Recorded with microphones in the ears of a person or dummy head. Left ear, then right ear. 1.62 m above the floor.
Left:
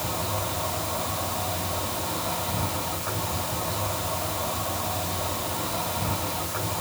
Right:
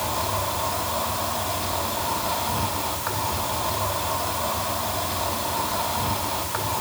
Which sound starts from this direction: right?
An insect, at 0.0 s.